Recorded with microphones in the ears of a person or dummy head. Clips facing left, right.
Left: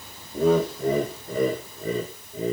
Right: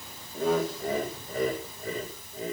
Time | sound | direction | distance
0.3 | laughter | 75° left (ahead or behind) | 1.6 m